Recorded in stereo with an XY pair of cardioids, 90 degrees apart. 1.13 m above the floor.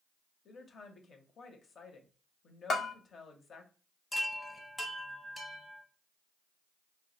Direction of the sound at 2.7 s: 60° left.